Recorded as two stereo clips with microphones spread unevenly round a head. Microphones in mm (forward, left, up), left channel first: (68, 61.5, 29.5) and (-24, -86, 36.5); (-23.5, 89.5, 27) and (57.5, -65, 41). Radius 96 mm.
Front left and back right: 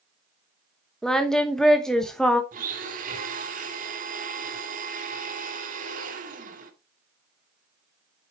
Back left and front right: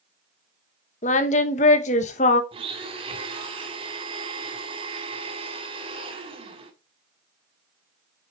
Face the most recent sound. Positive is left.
turn(degrees=-110)